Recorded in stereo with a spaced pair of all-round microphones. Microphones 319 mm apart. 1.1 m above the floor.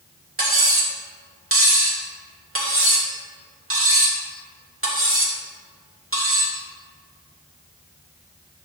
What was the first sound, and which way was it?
Cutlery clinking, 40° right (ahead or behind).